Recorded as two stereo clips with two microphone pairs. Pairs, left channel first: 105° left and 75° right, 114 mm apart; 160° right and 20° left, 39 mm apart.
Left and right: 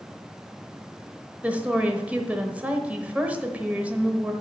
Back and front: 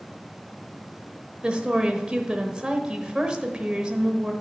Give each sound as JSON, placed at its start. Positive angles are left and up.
{"t": 1.4, "sound": "a woman speaking", "azimuth_deg": -10, "distance_m": 1.0}